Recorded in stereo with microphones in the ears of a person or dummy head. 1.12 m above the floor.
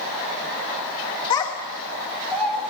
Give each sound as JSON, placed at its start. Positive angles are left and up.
{"t": 1.3, "sound": "a child speaking", "side_deg": 25, "distance_m": 0.8}